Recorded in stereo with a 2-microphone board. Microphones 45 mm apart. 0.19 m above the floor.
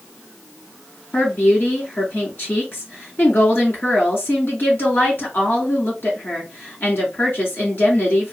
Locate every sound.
1.1 s a woman speaking: 55° left (ahead or behind), 2.5 m